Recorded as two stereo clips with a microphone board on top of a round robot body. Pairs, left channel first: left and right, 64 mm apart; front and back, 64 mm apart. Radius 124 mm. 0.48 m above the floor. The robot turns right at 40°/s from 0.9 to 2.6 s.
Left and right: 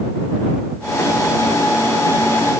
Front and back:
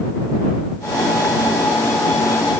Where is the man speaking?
No man speaking in this recording.